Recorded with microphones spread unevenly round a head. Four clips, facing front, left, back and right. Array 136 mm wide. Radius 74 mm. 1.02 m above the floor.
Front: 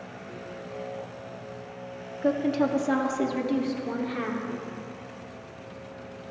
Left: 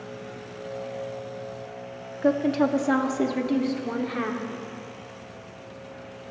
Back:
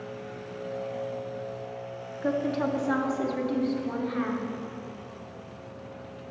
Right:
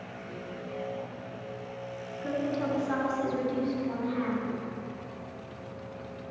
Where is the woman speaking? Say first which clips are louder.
Left 9 dB, front 3 dB; 70° left, 1.7 m; by 4.5 s 65° left, 3 m.